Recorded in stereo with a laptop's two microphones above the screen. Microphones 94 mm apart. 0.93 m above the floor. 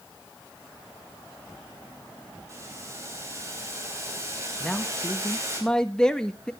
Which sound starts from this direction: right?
Boiling, at 2.5 s.